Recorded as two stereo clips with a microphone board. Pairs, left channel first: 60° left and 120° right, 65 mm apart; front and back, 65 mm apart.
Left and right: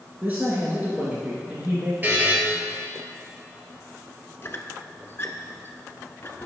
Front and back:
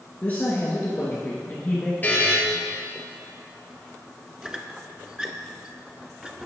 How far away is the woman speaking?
About 2.0 m.